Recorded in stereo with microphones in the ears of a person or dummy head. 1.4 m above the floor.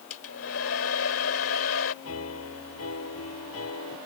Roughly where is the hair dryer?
Left.